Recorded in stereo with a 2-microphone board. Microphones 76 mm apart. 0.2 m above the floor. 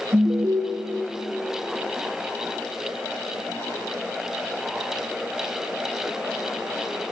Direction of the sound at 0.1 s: 50° right (ahead or behind).